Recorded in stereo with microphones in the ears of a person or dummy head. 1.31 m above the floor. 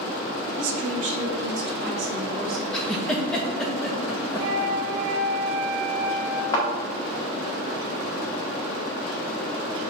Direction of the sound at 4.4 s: 40° right (ahead or behind).